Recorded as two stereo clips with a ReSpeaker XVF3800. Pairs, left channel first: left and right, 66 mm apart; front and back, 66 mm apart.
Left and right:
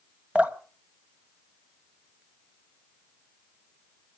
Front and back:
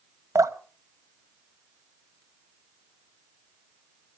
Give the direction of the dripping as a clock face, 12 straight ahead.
5 o'clock.